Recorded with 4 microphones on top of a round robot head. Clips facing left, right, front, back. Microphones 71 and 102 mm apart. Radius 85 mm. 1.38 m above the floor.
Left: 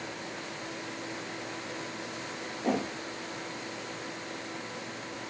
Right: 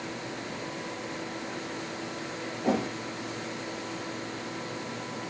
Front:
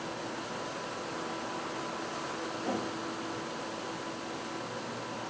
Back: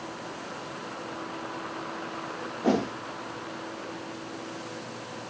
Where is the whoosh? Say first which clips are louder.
Right 2 dB, back 11 dB; straight behind, 1.0 m.